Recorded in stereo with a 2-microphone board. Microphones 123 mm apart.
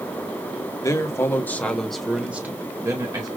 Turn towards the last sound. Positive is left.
turn(degrees=-30)  # may be behind; listen again after turning